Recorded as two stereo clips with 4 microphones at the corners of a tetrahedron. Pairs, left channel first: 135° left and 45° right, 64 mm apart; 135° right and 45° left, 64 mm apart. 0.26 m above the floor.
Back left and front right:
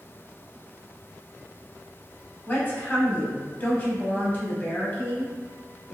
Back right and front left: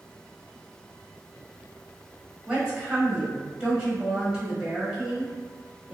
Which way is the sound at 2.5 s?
110° left.